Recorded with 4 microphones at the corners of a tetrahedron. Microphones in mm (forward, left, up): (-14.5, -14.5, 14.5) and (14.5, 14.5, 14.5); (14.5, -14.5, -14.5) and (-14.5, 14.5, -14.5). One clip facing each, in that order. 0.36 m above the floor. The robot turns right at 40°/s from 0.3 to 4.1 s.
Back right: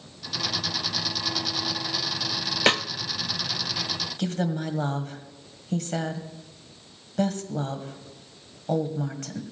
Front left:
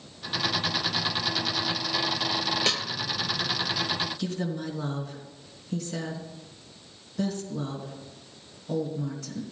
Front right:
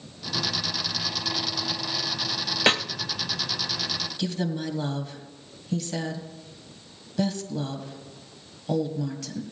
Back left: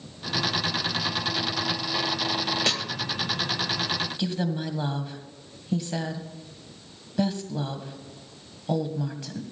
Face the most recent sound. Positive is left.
turn(degrees=-155)